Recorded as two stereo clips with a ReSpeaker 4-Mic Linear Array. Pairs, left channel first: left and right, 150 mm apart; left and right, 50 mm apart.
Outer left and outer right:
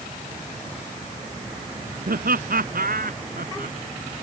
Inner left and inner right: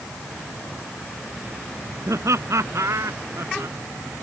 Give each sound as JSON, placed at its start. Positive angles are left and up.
{"t": 2.1, "sound": "laughter", "side_deg": -80}